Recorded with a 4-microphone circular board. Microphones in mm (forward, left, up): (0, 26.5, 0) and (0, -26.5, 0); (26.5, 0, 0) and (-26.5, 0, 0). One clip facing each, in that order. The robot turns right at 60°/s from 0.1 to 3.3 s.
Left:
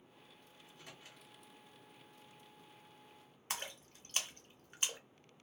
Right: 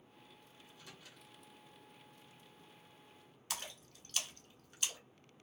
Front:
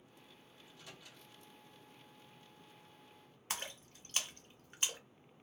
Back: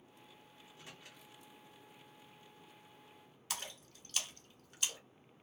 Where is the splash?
45° left, 0.7 m.